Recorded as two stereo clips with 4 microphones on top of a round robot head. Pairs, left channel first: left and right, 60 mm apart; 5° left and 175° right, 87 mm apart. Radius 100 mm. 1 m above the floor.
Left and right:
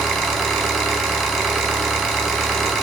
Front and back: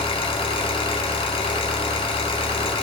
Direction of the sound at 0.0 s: 10° left.